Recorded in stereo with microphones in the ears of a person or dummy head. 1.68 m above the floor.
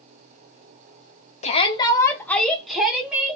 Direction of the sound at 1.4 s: 40° left (ahead or behind).